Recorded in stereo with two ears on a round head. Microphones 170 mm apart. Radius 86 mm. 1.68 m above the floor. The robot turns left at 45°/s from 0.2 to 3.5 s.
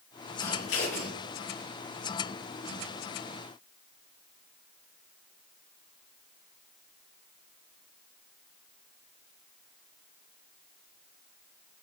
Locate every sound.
0.4 s scissors: 80° left, 7 m; by 1.1 s 60° left (ahead or behind), 7 m